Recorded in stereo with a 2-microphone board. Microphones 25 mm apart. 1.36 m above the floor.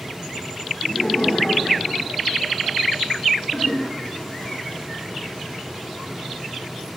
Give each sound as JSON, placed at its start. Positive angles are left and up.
{"t": 0.8, "sound": "laughter", "side_deg": 70, "distance_m": 9.0}
{"t": 3.5, "sound": "a toilet flushing", "side_deg": 45, "distance_m": 8.5}